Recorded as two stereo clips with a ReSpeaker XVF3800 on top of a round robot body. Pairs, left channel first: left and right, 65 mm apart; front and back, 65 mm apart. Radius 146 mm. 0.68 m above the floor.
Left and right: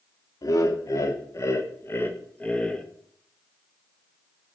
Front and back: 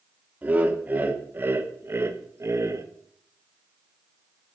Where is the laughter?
115° left, 2 m; by 2.9 s 165° left, 1.3 m.